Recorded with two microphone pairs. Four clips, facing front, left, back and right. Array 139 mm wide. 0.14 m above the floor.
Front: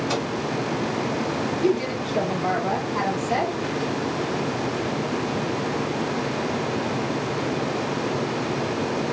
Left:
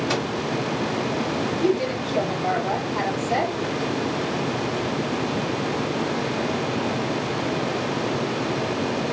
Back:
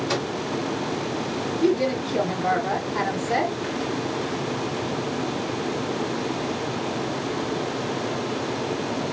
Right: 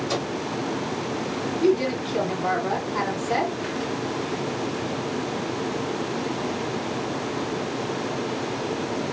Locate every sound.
0.1 s a microwave: 105° left, 1.5 m
1.6 s a woman speaking: 50° right, 1.4 m